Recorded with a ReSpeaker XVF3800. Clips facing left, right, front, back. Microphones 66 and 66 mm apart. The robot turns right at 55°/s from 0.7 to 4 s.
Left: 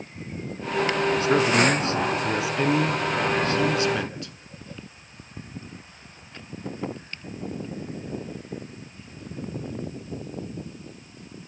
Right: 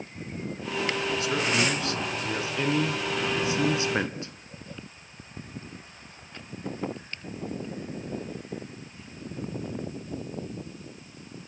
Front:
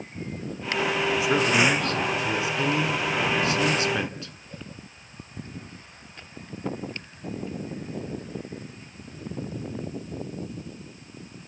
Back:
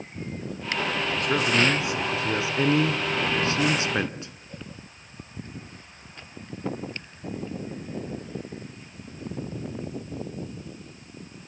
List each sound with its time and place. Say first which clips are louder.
1.2 s a man speaking: left 7 dB, front 1 dB; 75° left, 1.2 m; by 4.3 s 130° right, 1.2 m